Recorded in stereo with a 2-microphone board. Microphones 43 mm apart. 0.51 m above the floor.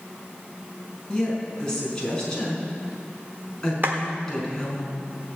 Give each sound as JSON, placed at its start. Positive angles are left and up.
{"t": 1.1, "sound": "a woman speaking", "side_deg": 15, "distance_m": 5.0}
{"t": 3.8, "sound": "a clap", "side_deg": -50, "distance_m": 1.4}